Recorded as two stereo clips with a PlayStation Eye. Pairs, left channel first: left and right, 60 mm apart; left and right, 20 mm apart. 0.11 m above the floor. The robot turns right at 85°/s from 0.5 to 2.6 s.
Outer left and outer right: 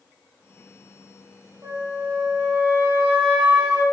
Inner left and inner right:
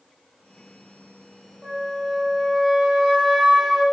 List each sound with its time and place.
1.6 s a flute: 105° right, 5.5 m; by 3.8 s 20° right, 5.5 m